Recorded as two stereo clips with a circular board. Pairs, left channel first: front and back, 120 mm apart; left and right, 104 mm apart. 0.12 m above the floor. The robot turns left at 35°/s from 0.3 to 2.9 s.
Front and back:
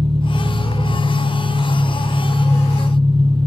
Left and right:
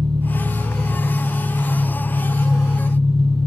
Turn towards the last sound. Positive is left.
turn(degrees=135)